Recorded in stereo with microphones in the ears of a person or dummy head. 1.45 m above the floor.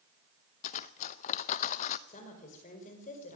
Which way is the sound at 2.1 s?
45° left (ahead or behind).